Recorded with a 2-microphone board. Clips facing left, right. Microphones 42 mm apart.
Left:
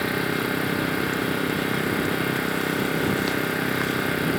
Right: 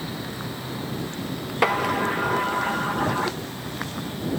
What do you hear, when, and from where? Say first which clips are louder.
0.0 s an engine running: left 8 dB; 80° left
1.6 s a sliding door: right 2 dB; 80° right